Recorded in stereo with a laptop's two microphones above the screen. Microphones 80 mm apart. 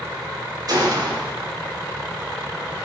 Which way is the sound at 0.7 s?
60° right (ahead or behind).